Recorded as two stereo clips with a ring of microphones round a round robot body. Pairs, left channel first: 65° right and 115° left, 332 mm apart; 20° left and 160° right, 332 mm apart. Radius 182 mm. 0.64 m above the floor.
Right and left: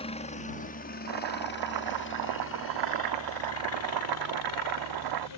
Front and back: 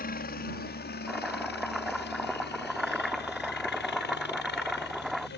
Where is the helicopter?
10° right; by 5.4 s 35° right.